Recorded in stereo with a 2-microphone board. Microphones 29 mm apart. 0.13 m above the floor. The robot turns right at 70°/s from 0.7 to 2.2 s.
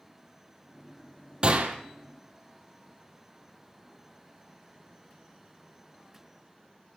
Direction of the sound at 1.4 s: 35° right (ahead or behind).